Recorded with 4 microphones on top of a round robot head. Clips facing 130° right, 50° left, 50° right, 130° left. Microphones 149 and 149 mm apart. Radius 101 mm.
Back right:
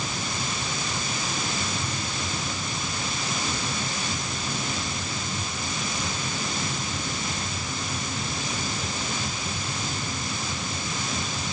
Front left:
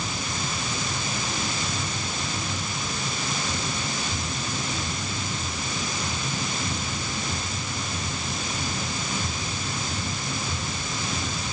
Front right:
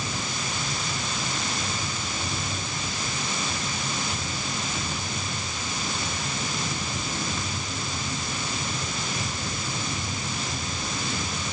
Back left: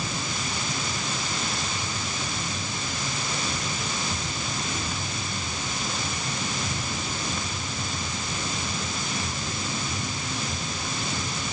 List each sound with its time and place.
Only background noise.